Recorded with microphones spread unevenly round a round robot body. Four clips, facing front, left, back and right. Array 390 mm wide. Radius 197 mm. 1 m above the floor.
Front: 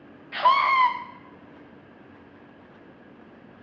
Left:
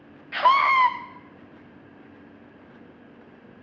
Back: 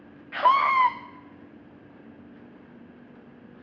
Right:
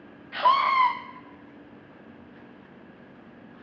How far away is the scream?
About 1.1 m.